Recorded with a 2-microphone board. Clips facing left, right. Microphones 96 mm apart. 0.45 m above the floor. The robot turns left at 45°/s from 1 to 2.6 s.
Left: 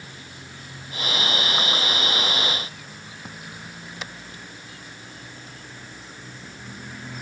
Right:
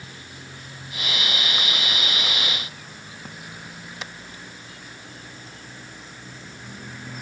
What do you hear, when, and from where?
Only background noise.